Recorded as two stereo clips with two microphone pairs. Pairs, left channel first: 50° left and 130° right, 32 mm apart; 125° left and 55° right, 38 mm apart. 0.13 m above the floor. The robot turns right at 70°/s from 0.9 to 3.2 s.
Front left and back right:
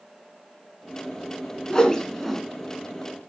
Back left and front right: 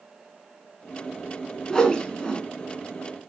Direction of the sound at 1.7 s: 85° left.